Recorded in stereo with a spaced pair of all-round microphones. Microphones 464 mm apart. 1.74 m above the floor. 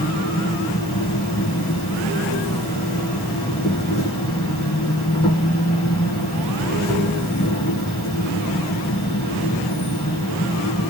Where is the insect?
15° left (ahead or behind), 4 m.